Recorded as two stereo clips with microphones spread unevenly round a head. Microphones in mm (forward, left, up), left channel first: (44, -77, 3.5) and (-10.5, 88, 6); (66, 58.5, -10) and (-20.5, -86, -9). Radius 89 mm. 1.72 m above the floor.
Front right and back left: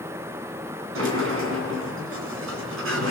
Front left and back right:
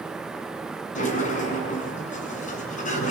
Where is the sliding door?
110° left, 6 m.